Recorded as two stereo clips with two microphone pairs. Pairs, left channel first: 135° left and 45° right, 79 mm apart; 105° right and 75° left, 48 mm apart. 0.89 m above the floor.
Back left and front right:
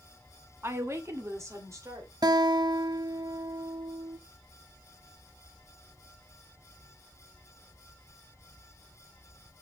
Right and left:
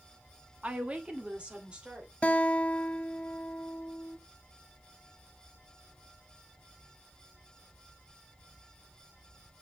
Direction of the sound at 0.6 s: 10° left.